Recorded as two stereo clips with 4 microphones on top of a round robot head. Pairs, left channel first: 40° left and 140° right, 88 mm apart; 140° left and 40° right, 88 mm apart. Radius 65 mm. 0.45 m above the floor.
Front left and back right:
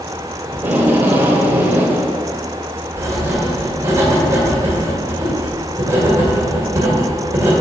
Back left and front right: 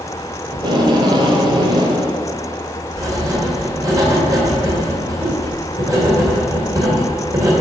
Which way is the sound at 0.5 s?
75° right.